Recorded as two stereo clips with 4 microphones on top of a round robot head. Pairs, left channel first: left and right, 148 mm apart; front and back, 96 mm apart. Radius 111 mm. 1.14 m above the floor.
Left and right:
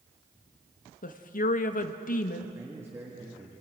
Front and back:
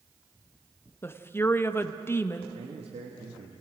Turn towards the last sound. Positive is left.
turn(degrees=-165)